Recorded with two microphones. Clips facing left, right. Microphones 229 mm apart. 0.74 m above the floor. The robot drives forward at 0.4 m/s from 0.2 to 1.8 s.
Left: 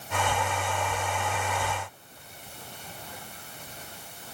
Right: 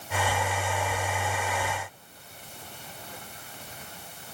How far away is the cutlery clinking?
No cutlery clinking in this recording.